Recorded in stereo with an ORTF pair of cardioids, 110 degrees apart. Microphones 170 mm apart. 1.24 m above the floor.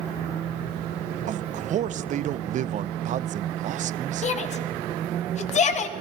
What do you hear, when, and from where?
1.3 s a man speaking: 45° right, 0.6 m
4.2 s a shout: 45° left, 1.6 m